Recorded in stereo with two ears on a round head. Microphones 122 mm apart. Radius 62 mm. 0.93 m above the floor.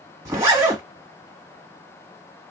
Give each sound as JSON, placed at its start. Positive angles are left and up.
{"t": 0.2, "sound": "a zipper", "side_deg": -20, "distance_m": 1.4}